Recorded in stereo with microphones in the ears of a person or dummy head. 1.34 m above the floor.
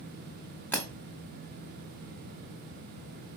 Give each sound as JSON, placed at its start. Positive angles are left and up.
{"t": 0.7, "sound": "breaking glass", "side_deg": 10, "distance_m": 1.5}